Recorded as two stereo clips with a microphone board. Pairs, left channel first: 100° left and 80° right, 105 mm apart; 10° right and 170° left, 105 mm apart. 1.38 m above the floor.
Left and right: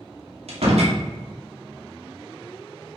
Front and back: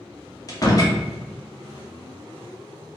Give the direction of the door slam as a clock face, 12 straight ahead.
2 o'clock.